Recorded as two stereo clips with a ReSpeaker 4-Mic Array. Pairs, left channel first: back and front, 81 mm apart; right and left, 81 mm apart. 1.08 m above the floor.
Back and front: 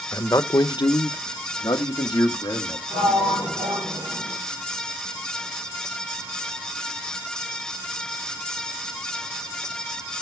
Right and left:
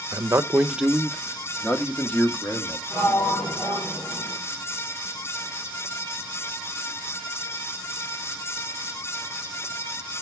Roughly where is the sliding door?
Ahead right.